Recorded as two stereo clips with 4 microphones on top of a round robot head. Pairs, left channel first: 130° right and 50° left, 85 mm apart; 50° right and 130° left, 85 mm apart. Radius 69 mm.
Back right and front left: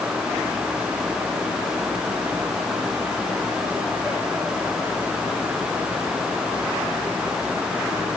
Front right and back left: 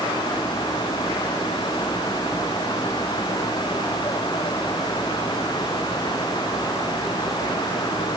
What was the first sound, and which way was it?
Only background noise.